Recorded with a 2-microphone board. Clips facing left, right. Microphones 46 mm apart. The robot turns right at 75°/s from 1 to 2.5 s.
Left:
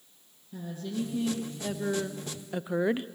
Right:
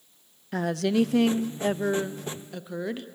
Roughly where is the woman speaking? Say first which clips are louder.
Right 11 dB; right.